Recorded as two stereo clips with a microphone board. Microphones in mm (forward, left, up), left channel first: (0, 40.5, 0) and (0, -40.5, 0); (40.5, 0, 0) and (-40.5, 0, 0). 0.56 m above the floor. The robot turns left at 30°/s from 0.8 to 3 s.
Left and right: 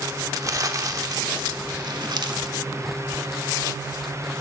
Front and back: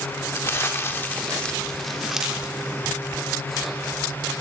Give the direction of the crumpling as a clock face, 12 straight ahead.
2 o'clock.